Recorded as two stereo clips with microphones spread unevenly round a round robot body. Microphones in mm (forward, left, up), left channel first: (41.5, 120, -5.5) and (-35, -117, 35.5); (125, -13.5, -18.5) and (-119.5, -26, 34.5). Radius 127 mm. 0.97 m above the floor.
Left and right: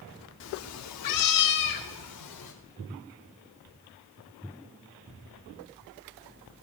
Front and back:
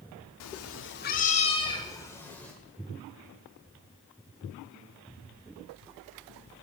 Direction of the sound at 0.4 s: 30° left.